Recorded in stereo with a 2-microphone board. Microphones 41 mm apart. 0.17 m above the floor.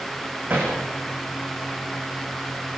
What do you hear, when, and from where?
0.5 s hammering: 50° right (ahead or behind), 9 m